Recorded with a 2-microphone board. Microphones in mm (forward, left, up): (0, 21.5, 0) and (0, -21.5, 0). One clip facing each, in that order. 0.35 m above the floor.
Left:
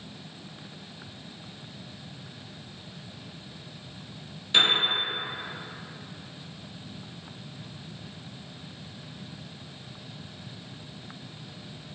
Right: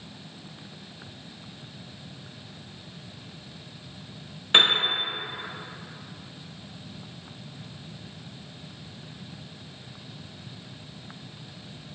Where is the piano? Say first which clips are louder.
Right 3 dB; 45° right (ahead or behind), 0.8 m.